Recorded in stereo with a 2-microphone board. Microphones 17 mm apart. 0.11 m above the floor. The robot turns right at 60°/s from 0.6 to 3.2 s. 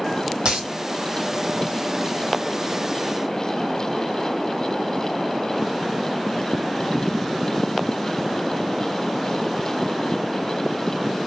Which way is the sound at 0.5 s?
75° right (ahead or behind).